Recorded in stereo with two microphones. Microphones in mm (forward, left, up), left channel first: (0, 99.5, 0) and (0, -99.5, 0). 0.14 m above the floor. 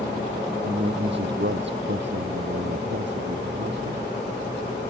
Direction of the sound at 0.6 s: 65° right (ahead or behind).